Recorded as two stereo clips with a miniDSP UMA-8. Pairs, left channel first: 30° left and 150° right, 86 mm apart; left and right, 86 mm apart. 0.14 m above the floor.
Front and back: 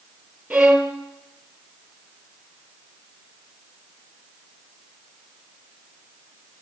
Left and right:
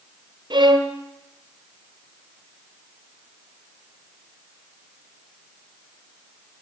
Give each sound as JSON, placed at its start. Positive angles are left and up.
{"t": 0.5, "sound": "a violin", "azimuth_deg": -70, "distance_m": 1.8}